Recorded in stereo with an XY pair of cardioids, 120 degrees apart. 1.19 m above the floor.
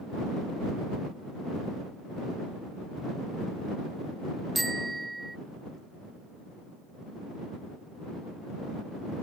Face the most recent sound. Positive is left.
turn(degrees=-15)